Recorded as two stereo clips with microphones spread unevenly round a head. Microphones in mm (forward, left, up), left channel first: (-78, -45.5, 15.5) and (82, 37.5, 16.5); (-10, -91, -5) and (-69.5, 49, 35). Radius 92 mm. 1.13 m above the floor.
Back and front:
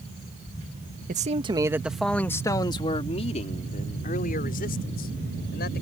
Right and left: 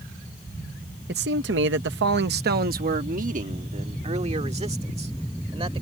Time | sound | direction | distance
1.1 | a man speaking | 75° left | ?